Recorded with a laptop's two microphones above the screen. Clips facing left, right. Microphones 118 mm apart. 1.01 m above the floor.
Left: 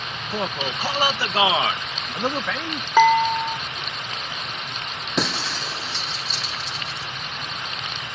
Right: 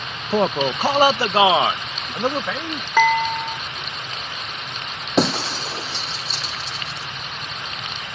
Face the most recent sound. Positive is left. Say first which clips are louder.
# right 7 dB
turn(degrees=-35)  # may be behind; listen again after turning